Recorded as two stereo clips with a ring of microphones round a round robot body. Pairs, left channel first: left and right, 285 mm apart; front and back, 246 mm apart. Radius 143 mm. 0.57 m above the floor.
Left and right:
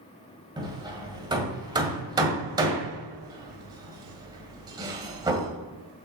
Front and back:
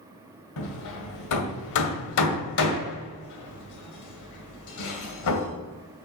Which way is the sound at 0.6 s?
15° right.